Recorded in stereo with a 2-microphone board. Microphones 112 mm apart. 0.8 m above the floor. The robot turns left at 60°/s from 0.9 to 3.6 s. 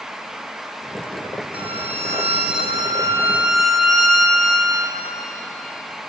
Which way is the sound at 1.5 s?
60° right.